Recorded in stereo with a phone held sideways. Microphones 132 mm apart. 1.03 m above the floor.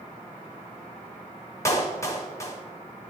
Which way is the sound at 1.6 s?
20° left (ahead or behind).